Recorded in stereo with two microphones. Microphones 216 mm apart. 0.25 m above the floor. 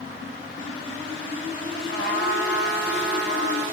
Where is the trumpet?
50° left (ahead or behind), 4.5 m.